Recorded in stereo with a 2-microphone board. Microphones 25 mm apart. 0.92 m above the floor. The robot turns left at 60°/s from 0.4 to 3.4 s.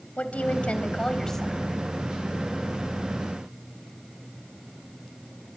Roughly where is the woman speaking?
Left.